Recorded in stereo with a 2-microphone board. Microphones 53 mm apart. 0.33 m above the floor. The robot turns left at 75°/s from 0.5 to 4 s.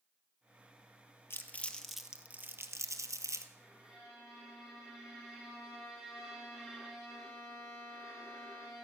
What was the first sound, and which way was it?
Crumpling, 45° left (ahead or behind).